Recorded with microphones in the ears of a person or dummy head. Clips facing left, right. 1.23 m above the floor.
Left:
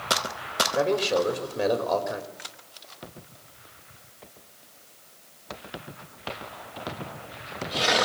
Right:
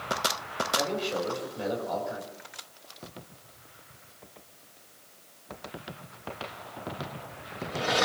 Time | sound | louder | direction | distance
0.8 | a man speaking | left 8 dB | 70° left (ahead or behind) | 3.5 m